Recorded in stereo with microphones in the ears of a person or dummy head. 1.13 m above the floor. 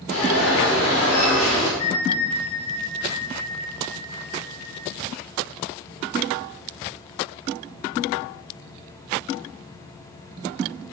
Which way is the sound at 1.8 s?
75° left (ahead or behind).